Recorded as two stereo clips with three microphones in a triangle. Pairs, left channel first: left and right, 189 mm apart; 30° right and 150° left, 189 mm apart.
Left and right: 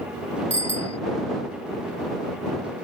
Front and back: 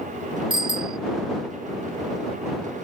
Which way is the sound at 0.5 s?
145° right.